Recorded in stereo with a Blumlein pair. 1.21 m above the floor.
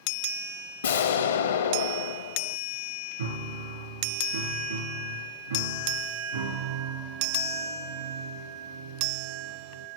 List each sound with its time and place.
0.8 s an explosion: 65° left, 0.8 m
3.2 s a piano: 70° right, 1.9 m